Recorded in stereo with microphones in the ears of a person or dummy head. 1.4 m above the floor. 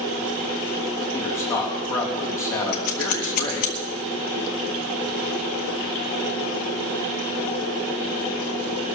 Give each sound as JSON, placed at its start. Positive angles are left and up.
{"t": 1.1, "sound": "a man speaking", "side_deg": 15, "distance_m": 3.5}
{"t": 2.7, "sound": "scissors", "side_deg": 45, "distance_m": 1.6}